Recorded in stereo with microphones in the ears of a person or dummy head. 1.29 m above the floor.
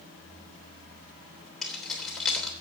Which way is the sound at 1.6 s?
Centre (ahead or behind).